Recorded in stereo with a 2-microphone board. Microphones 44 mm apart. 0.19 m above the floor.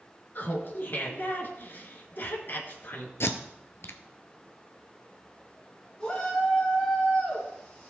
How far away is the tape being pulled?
About 0.9 m.